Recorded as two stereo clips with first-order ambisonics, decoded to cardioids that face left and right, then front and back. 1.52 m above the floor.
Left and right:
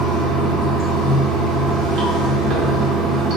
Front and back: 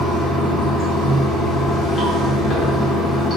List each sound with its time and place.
0.0 s running water: 65° right, 1.1 m